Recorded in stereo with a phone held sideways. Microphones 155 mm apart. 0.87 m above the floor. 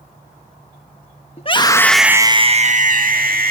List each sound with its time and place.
1.4 s a scream: 40° left (ahead or behind), 1.4 m; by 3.5 s 70° right (ahead or behind), 2.5 m